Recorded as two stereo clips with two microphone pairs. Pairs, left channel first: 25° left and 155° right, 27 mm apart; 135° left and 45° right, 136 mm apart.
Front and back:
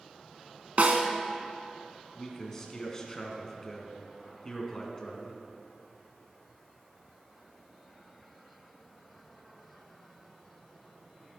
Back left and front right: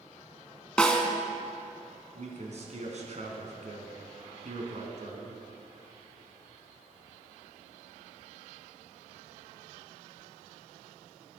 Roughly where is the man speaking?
Ahead right.